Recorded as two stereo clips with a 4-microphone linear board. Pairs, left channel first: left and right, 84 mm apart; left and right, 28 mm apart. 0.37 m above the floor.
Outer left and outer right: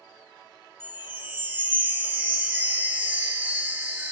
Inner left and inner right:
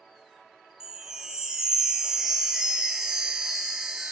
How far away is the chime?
About 0.6 m.